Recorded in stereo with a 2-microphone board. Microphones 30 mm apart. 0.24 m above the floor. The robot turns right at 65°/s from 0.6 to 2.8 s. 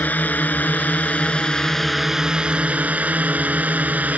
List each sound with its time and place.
0.0 s a drone: 65° left (ahead or behind); by 4.2 s 60° right (ahead or behind)